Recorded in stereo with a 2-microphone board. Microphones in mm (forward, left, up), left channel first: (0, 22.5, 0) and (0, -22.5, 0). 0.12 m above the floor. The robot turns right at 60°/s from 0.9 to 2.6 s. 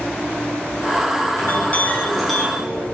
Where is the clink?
125° left, 3.5 m; by 2.8 s 165° right, 3.5 m.